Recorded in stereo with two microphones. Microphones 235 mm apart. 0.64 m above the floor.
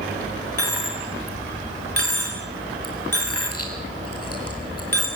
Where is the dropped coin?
80° left, 4.5 m.